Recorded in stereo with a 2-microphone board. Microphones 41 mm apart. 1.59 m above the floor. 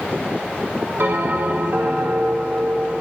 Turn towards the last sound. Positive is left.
turn(degrees=-50)  # may be behind; listen again after turning